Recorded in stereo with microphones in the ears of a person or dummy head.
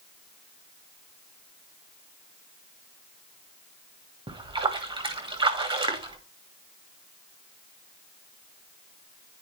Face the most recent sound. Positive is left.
turn(degrees=-25)  # may be behind; listen again after turning